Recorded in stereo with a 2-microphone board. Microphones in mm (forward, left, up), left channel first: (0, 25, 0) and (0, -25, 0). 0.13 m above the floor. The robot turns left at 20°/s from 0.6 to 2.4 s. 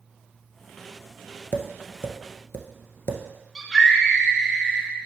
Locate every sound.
1.5 s tapping: 45° left (ahead or behind), 1.2 m; by 3.2 s 55° left (ahead or behind), 1.2 m
3.5 s a scream: centre (ahead or behind), 2 m